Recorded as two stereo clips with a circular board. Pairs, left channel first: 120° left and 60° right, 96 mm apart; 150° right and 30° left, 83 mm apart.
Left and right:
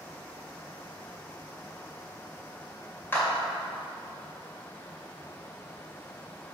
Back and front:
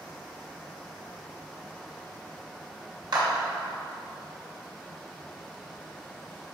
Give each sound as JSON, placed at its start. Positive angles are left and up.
{"t": 3.1, "sound": "a clap", "azimuth_deg": 55, "distance_m": 2.5}